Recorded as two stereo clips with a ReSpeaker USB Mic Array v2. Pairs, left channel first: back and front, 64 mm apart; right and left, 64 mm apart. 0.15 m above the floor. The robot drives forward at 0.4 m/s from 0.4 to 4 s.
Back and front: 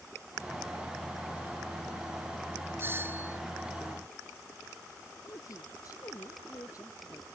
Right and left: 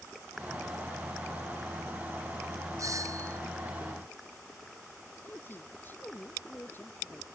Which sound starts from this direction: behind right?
A woman speaking, at 5.2 s.